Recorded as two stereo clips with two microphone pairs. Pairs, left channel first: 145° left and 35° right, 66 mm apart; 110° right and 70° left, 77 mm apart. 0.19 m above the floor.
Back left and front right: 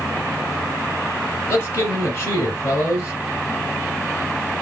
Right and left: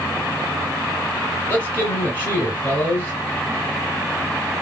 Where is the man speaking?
175° right, 1.7 m.